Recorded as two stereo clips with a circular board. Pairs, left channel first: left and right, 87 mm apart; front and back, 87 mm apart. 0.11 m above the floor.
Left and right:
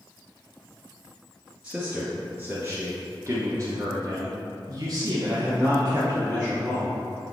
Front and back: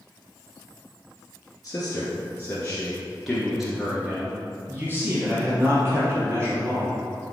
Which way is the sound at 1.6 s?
10° right.